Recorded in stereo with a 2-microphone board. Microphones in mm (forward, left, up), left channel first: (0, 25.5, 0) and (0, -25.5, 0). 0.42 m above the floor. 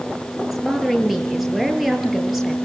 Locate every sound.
0.4 s a woman speaking: 5° right (ahead or behind), 7 m